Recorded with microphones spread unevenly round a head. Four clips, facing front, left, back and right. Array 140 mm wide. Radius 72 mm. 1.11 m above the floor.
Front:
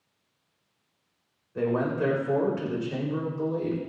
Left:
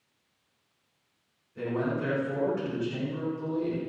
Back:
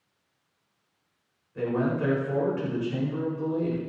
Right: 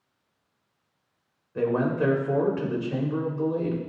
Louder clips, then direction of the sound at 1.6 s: Right 6 dB, front 1 dB; 60° right.